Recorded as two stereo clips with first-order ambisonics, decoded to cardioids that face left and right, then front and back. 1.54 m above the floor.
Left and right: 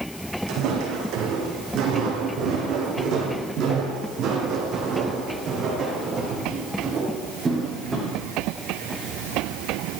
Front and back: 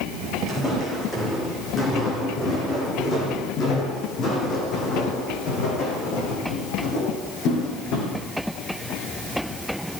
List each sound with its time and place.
0.5 s footsteps: 75° right, 4.5 m; by 8.2 s 20° right, 4.5 m